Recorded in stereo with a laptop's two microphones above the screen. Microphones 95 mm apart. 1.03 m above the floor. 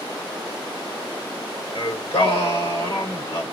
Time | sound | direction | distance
1.8 | singing | 85° left | 3 m